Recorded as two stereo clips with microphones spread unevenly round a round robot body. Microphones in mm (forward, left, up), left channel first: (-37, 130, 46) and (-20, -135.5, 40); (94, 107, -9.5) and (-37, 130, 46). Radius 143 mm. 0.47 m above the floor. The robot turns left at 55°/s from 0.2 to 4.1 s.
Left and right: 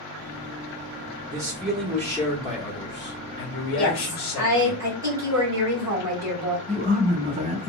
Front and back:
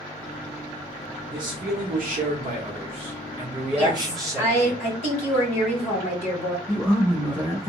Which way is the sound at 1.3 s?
150° right.